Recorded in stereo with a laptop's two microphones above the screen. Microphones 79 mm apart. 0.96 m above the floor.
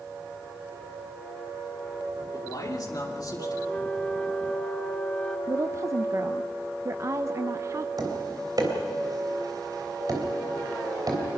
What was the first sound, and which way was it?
A man speaking, 50° left (ahead or behind).